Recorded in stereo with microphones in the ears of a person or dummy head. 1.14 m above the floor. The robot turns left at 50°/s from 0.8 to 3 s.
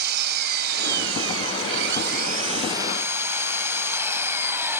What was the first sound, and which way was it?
An engine running, 60° right.